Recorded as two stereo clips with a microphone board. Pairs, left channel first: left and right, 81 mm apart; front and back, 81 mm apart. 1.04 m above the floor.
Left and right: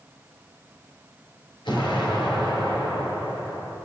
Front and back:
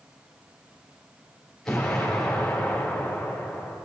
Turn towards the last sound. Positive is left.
turn(degrees=85)